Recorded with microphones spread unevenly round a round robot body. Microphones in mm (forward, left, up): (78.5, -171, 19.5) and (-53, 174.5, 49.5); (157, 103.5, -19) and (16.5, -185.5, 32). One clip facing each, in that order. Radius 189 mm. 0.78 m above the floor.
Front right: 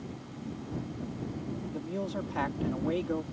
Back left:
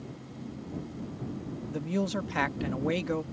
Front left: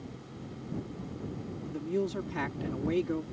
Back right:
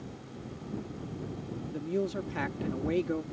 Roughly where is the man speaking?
Behind left.